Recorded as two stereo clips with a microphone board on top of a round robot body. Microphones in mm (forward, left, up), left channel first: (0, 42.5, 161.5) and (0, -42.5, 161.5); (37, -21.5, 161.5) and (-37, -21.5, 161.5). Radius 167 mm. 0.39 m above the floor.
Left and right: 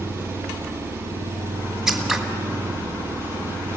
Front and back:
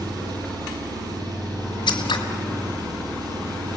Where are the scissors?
5° right, 1.9 m.